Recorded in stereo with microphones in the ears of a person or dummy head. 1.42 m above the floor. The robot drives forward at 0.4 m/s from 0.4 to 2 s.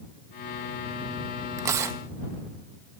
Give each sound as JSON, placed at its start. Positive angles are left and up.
{"t": 1.6, "sound": "tearing paper", "side_deg": -15, "distance_m": 0.5}